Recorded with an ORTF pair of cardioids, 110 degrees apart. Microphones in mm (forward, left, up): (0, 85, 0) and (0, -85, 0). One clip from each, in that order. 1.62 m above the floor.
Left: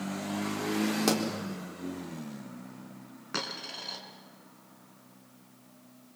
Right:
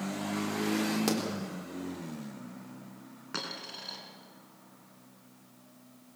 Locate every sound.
1.1 s a pop: 20° left, 4 m
3.3 s a dropped coin: 15° left, 5 m